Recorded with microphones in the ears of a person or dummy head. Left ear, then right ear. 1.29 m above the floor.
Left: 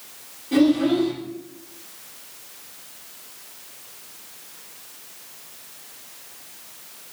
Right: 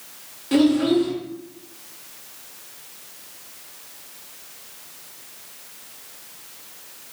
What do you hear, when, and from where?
0.5 s a child speaking: 55° right (ahead or behind), 1.3 m